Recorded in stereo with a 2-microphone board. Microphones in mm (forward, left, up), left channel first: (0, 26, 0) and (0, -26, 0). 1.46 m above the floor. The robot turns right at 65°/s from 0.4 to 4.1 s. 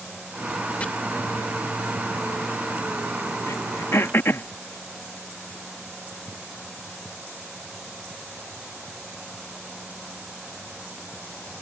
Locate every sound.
0.8 s chopping: 25° left (ahead or behind)
3.5 s throat clearing: 70° left (ahead or behind); by 4.5 s 50° left (ahead or behind)